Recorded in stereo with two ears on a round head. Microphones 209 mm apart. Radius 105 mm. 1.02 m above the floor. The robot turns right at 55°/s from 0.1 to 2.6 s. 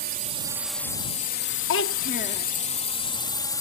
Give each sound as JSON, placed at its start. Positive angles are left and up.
{"t": 0.0, "sound": "a drone", "side_deg": -40}
{"t": 1.7, "sound": "a child speaking", "azimuth_deg": 115}